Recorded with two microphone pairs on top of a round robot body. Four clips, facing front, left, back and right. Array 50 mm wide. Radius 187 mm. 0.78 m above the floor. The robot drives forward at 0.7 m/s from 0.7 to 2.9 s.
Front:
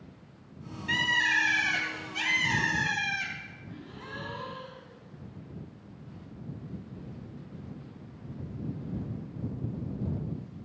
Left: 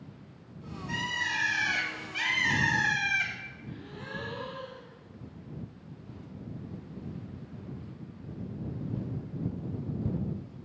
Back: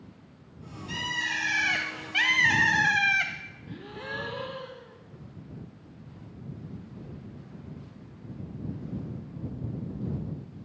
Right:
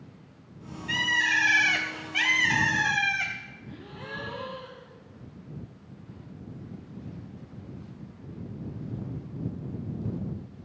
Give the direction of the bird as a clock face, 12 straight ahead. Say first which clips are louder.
Right 7 dB, front 5 dB; 12 o'clock.